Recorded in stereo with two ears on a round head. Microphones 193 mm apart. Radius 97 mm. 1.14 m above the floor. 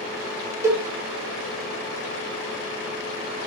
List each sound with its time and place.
0.6 s a cowbell: 15° right (ahead or behind), 0.6 m